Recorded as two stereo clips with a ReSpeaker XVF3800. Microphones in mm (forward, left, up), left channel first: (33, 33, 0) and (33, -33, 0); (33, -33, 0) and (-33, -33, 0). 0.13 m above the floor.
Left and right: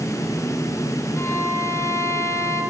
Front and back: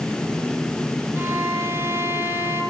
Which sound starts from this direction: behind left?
A violin, at 1.1 s.